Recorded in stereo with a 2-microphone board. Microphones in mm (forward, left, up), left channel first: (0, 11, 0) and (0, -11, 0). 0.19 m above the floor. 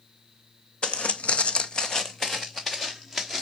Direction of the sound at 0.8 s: 60° left (ahead or behind).